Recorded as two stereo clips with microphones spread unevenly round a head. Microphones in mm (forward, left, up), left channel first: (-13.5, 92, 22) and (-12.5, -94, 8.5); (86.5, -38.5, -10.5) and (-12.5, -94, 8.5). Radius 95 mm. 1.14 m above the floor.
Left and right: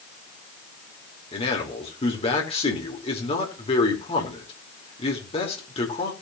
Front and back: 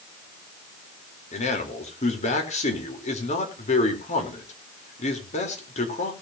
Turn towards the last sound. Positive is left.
turn(degrees=30)